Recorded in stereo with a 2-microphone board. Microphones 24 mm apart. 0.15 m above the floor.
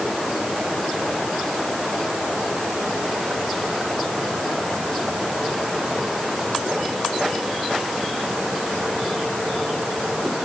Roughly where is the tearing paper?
No tearing paper in this recording.